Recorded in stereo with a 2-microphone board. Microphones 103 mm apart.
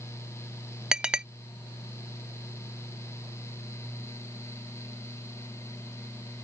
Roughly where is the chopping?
I don't hear chopping.